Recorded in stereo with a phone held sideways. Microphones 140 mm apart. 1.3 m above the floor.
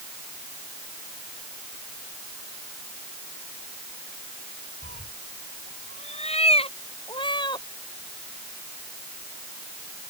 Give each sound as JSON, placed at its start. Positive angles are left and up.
{"t": 4.8, "sound": "a cat meowing", "side_deg": 70}